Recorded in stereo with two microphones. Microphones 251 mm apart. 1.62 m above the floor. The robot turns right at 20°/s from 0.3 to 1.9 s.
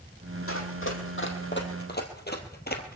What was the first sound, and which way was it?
Running footsteps, 60° left (ahead or behind).